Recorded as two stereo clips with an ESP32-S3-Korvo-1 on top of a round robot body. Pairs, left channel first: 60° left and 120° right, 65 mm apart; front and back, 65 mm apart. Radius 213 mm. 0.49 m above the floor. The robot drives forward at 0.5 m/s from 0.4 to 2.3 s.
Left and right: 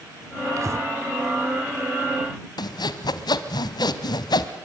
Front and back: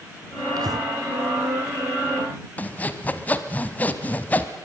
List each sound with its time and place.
0.6 s breathing: 160° right, 1.1 m
2.6 s sawing: 65° left, 0.9 m